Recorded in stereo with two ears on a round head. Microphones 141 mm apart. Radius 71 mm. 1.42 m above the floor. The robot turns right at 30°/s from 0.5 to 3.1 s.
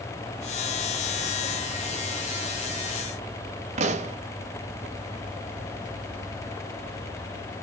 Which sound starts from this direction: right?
A pop, at 3.8 s.